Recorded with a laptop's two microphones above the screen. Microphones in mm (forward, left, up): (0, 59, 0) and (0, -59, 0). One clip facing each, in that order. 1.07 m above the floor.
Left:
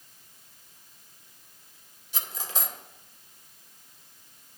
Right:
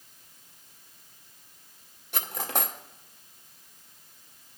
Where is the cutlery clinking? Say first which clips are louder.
Right 5 dB; 55° right (ahead or behind), 1.1 m.